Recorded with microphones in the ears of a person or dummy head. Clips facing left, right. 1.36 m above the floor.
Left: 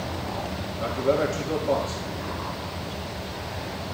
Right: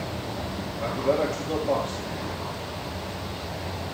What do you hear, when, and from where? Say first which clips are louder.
0.8 s a man speaking: left 1 dB; 10° left (ahead or behind), 2 m